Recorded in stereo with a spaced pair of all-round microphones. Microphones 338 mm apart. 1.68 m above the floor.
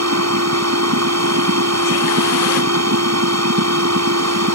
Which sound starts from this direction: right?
A machine running, at 0.0 s.